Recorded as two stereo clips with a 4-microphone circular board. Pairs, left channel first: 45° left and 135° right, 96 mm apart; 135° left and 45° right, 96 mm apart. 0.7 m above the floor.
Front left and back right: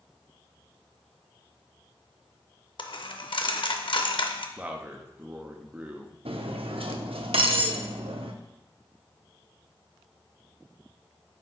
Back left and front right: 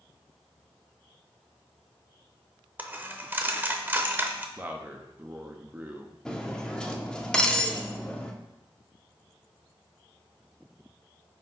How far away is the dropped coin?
About 0.6 m.